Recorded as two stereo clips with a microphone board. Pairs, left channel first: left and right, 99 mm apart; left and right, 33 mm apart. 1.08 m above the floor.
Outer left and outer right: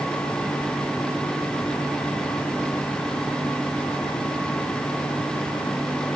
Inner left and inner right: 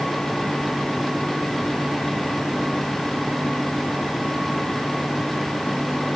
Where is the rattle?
No rattle in this recording.